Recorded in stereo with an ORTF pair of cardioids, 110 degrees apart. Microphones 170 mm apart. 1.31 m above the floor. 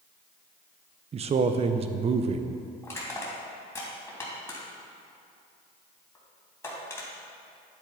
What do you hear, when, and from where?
1.1 s a man speaking: 40° right, 0.7 m
2.8 s crushing: 15° left, 3 m